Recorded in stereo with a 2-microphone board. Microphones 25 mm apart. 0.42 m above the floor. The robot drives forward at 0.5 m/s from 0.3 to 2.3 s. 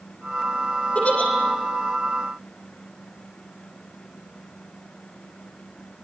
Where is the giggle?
65° left (ahead or behind), 6.5 m.